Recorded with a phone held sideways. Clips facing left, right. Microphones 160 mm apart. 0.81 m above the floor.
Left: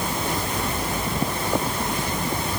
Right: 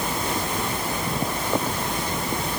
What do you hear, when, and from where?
Only background noise.